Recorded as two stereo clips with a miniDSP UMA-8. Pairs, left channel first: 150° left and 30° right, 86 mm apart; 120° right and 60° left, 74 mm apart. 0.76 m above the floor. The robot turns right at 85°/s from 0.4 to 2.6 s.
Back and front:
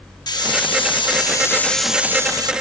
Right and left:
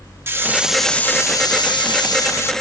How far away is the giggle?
I don't hear a giggle.